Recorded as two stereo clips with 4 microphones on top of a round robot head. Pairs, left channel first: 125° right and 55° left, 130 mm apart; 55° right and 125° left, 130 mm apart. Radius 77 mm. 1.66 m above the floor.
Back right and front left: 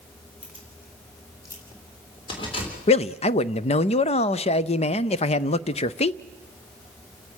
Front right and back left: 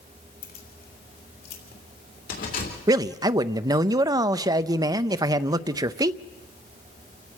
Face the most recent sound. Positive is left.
turn(degrees=-170)